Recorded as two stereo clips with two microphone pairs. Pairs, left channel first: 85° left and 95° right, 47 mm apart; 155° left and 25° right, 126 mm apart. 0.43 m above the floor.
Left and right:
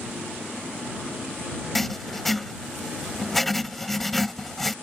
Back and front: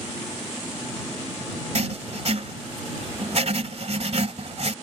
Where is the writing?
Straight ahead.